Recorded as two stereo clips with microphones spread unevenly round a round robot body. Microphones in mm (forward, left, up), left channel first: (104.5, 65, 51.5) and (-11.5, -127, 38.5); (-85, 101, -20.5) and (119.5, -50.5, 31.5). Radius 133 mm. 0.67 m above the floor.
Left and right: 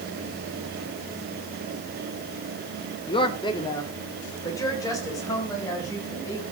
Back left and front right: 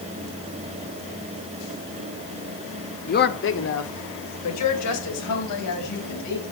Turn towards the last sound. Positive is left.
turn(degrees=140)